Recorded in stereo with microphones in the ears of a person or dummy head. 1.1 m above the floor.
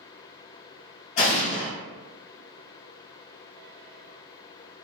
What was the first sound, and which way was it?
An explosion, 35° left (ahead or behind).